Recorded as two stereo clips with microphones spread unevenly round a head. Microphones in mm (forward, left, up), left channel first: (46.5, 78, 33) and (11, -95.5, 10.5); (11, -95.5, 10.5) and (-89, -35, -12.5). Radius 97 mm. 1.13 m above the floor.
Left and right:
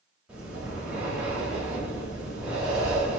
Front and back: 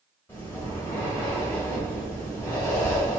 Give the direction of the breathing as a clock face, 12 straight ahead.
12 o'clock.